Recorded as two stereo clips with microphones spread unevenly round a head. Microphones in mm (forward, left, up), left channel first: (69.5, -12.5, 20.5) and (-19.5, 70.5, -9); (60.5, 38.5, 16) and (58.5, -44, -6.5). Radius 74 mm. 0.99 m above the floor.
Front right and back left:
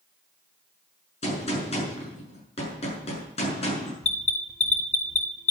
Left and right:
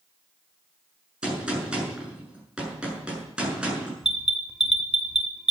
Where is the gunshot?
10° right, 7 m.